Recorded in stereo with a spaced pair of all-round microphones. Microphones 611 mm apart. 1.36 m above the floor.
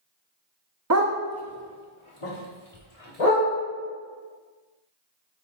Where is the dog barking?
30° right (ahead or behind), 0.8 m; by 3.5 s 65° left (ahead or behind), 3 m.